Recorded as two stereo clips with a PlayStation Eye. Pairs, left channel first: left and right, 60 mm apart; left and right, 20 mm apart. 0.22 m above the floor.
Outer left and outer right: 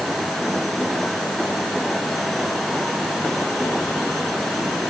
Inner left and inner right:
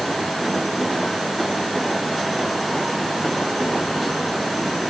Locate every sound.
Only background noise.